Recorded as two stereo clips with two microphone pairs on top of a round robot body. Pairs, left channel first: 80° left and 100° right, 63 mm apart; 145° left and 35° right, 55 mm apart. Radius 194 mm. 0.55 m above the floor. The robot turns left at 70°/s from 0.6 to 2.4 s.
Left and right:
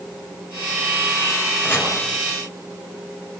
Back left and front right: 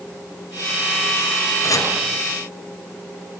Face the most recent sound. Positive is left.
turn(degrees=95)